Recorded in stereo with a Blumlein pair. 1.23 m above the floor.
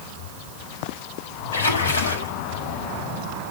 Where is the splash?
65° left, 4.5 m.